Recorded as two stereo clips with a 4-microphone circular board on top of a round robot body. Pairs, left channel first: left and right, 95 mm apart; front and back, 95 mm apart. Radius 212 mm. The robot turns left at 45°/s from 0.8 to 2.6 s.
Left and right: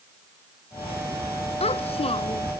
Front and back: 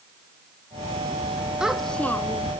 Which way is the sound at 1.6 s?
95° left.